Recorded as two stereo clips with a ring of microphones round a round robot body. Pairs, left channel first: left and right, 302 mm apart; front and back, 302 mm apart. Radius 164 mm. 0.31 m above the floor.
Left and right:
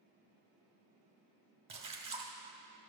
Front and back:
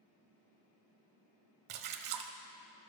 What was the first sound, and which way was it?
A splash, 160° right.